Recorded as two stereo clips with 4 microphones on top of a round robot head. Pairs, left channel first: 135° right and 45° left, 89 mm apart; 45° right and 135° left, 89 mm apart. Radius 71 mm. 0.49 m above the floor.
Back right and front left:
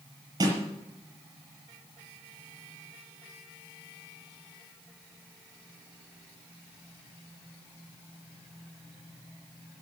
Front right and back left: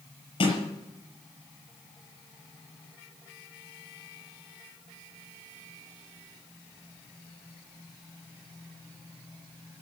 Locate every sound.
0.4 s a snare drum: 10° right, 6 m